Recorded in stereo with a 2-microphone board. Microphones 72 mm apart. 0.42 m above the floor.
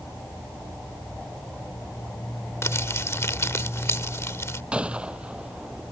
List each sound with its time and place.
2.6 s crumpling: 40° left (ahead or behind)
4.7 s a gunshot: 15° right (ahead or behind)